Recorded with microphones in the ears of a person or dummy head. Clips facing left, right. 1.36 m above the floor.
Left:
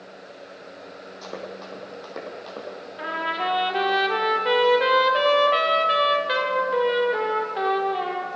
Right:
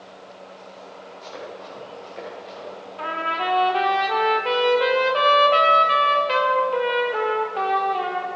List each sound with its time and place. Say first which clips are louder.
1.2 s running footsteps: left 1 dB; 65° left (ahead or behind), 3 m; by 2.7 s 55° left (ahead or behind), 2.5 m
3.0 s a trumpet: right 1 dB; 10° left (ahead or behind), 1.5 m